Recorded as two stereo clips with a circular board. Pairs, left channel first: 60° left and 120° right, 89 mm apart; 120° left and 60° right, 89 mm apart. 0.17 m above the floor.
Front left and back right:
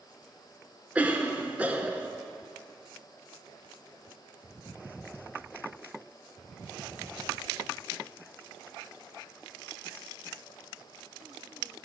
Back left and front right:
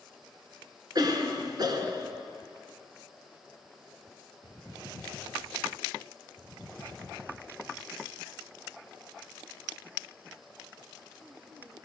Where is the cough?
50° right, 2.5 m.